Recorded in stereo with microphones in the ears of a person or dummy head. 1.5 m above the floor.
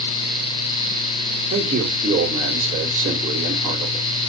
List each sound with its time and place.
1.5 s a man speaking: 40° right (ahead or behind), 1.6 m